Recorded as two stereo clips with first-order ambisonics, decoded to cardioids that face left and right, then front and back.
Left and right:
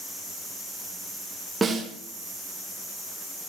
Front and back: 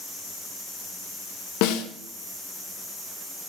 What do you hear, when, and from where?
1.6 s a snare drum: 10° right, 2.5 m